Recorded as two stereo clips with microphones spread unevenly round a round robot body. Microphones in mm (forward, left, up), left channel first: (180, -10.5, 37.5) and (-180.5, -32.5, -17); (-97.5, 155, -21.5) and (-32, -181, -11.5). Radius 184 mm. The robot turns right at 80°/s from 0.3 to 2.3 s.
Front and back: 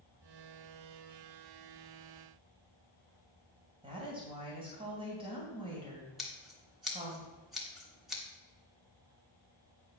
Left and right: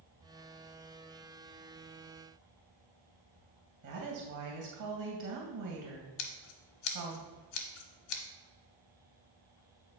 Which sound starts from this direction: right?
A woman speaking, at 3.8 s.